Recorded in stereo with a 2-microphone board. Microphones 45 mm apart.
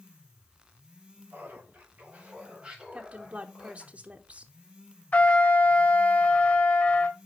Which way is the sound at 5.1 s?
35° left (ahead or behind).